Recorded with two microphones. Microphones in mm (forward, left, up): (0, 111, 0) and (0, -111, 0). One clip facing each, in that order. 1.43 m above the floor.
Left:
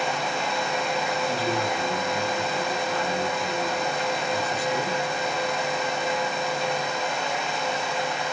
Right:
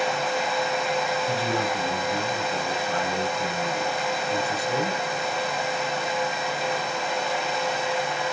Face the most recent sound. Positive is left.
turn(degrees=-80)